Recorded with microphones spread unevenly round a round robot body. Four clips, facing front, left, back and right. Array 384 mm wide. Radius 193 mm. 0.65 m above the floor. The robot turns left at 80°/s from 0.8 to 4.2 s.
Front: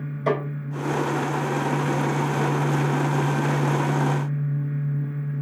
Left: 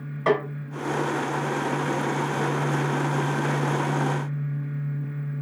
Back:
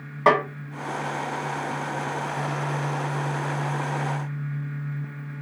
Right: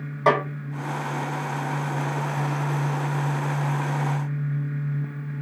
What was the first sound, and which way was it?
A snare drum, 160° right.